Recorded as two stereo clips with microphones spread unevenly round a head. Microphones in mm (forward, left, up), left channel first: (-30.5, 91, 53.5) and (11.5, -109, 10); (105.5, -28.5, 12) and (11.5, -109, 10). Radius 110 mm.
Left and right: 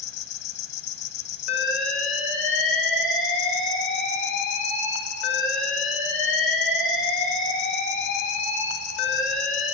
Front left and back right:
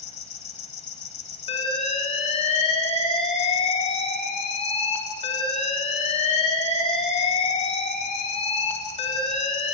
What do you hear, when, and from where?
0.0 s an insect: 75° left, 1.4 m
1.5 s an alarm: 10° left, 4 m